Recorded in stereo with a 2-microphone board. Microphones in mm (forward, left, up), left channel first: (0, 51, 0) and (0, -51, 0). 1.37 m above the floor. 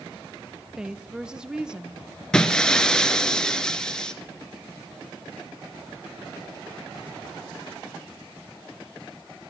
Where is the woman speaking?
10° right (ahead or behind), 1.2 m.